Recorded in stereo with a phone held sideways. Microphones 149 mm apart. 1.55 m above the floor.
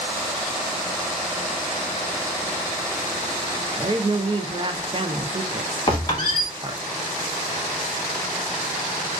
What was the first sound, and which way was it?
A woman speaking, 35° right (ahead or behind).